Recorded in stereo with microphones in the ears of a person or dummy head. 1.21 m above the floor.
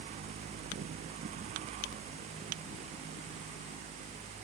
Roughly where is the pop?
No pop in this recording.